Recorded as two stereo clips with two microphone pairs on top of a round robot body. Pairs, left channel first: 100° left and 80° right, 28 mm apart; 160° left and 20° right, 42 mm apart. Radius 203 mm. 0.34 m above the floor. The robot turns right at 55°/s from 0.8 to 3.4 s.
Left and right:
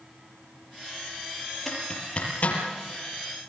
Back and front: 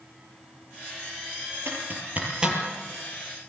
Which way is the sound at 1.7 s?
10° left.